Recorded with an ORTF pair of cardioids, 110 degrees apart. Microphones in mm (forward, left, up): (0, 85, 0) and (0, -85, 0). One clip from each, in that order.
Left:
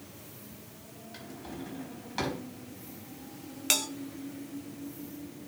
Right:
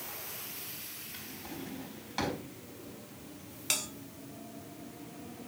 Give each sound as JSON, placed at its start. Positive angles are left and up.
{"t": 1.1, "sound": "a drawer", "azimuth_deg": 0, "distance_m": 4.5}
{"t": 3.7, "sound": "a bell", "azimuth_deg": 25, "distance_m": 2.0}